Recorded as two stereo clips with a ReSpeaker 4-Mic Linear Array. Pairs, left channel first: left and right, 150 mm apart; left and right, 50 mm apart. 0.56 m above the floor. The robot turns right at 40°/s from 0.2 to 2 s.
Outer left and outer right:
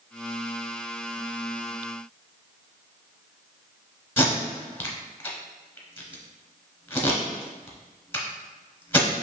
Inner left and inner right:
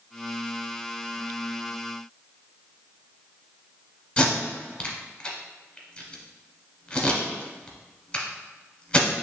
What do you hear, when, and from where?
4.2 s tape being pulled: 15° left (ahead or behind), 1.2 m